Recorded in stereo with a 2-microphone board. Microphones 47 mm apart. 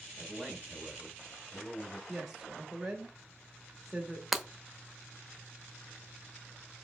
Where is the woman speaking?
10° right (ahead or behind), 0.9 m.